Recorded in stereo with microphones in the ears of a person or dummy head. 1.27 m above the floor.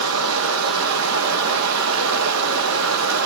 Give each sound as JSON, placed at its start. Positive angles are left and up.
{"t": 0.0, "sound": "running water", "side_deg": -80, "distance_m": 2.0}